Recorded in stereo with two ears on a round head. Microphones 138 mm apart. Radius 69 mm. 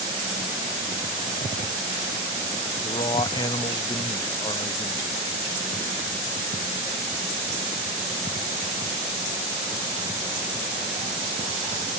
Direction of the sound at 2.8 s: 30° left (ahead or behind).